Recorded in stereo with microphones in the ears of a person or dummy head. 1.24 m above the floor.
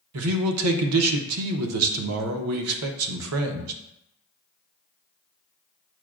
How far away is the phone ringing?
No phone ringing in this recording.